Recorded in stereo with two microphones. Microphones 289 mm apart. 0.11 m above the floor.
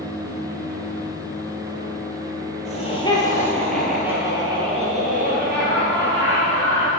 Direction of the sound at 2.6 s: 25° left (ahead or behind).